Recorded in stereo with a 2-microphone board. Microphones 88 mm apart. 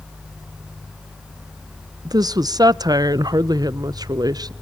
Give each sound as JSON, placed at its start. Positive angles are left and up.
{"t": 2.0, "sound": "a woman speaking", "side_deg": -45, "distance_m": 0.6}